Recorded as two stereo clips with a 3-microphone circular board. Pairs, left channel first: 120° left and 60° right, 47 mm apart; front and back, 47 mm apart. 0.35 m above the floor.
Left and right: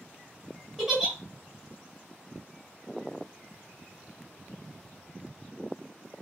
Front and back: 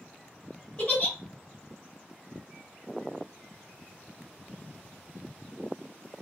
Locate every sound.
0.8 s a giggle: 30° left, 1.4 m